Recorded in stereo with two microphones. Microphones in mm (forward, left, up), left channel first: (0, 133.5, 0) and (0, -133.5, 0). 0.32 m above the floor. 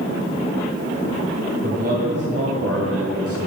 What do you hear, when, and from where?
1.6 s a man speaking: 30° right (ahead or behind), 2 m; by 3.4 s 50° right (ahead or behind), 2.5 m